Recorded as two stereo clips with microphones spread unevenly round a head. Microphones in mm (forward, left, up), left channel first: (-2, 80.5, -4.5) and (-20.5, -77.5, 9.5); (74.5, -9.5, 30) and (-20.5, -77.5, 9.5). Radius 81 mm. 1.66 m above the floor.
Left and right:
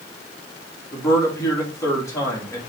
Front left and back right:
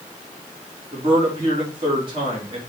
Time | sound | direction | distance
0.9 | a man speaking | 155° left | 3 m